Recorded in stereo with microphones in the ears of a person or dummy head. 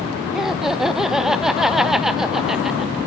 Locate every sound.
0.3 s laughter: centre (ahead or behind), 0.6 m